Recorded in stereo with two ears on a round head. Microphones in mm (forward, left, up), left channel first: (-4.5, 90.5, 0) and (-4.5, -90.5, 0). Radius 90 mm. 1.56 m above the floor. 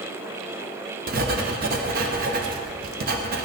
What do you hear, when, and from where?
1.1 s writing: 50° right (ahead or behind), 0.9 m